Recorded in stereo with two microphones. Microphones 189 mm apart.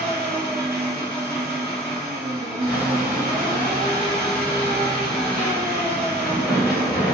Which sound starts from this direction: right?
An engine running, at 0.0 s.